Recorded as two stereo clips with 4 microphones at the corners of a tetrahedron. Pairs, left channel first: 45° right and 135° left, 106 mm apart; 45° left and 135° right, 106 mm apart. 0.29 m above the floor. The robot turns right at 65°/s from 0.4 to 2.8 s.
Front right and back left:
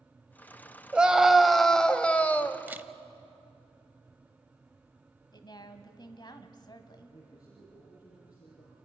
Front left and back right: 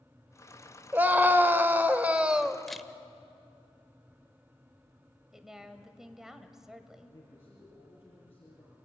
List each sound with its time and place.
0.9 s a scream: 170° right, 0.9 m; by 2.6 s 60° right, 0.9 m
2.7 s a camera shutter: 130° left, 0.7 m; by 2.9 s 135° left, 0.7 m
5.3 s a woman speaking: 50° right, 1.3 m
7.1 s a man speaking: 25° right, 5.5 m